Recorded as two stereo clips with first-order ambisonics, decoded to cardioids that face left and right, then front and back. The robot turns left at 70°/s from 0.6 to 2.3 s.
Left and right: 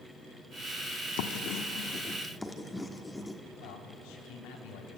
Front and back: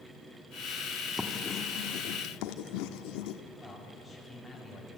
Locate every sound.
1.2 s writing: 90° left, 1.3 m; by 3.4 s 10° left, 1.3 m
3.6 s a man speaking: 90° left, 3.5 m